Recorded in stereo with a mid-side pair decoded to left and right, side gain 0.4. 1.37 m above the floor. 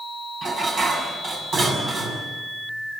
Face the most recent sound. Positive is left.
turn(degrees=-60)